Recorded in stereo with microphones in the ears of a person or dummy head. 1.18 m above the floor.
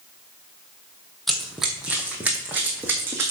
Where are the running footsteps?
Centre (ahead or behind), 1.8 m; by 3.3 s 10° right (ahead or behind), 2.5 m.